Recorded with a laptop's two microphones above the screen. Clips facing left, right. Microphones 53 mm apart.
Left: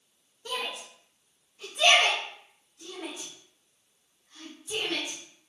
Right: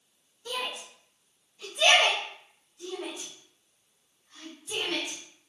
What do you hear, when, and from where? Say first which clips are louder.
0.5 s a shout: even; 45° left (ahead or behind), 0.8 m; by 5.2 s 45° right (ahead or behind), 2.5 m